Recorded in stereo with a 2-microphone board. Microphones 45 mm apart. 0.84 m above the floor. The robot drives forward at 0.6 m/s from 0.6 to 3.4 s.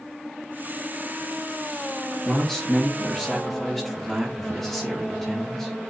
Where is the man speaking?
10° left (ahead or behind), 1.5 m; by 5.9 s 5° left (ahead or behind), 2 m.